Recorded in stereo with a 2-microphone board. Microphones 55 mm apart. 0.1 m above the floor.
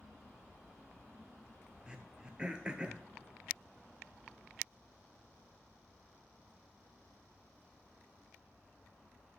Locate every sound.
1.9 s throat clearing: 15° right (ahead or behind), 0.8 m